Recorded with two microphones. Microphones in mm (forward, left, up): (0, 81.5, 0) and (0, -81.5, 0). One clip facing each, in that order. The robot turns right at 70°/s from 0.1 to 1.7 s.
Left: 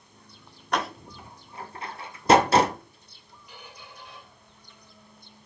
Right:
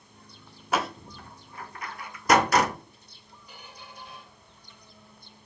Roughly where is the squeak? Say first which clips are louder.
Left 1 dB; right.